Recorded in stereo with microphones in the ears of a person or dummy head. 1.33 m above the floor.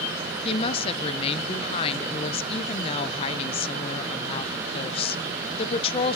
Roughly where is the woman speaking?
Left.